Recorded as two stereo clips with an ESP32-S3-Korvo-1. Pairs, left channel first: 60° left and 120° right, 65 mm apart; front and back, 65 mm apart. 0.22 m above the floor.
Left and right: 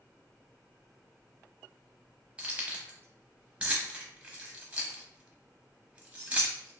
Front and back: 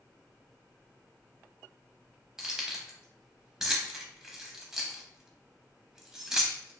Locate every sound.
2.4 s keys jangling: 115° right, 0.6 m